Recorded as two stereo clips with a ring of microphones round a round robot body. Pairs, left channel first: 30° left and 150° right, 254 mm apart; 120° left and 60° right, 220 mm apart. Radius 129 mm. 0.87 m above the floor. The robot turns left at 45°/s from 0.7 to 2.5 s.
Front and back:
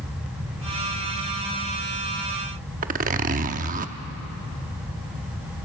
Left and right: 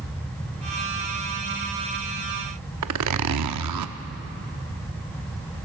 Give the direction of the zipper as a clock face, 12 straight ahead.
3 o'clock.